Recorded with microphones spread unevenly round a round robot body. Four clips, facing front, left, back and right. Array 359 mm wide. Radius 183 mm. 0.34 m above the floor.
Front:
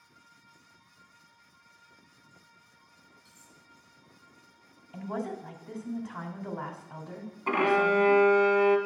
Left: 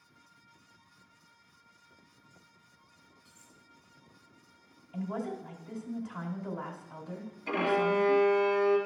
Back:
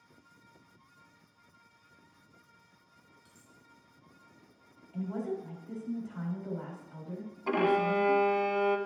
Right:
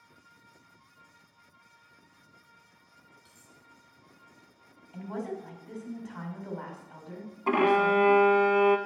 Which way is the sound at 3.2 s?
115° right.